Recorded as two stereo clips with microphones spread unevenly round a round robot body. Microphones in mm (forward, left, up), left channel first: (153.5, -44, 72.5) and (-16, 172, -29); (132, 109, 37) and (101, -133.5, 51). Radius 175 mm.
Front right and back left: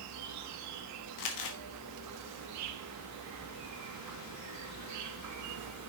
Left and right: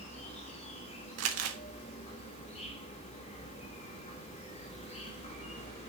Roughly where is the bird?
No bird in this recording.